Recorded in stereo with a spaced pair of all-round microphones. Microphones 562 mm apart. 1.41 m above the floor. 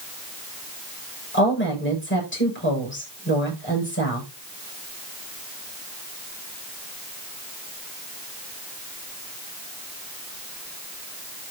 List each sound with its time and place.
1.3 s a woman speaking: 20° left (ahead or behind), 7 m